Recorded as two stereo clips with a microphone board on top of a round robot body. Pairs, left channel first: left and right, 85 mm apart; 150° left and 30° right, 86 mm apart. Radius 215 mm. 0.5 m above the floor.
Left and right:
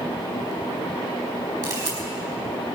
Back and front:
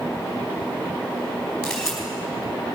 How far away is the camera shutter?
About 4.5 m.